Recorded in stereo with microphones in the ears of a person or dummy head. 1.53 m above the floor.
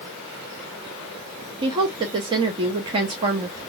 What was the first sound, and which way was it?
A woman speaking, 25° right (ahead or behind).